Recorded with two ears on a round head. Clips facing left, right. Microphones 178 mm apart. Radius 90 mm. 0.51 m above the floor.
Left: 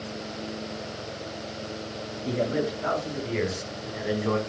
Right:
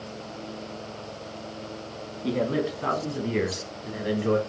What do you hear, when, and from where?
2.2 s a man speaking: 75° right (ahead or behind), 5 m; by 4.4 s 35° right (ahead or behind), 4 m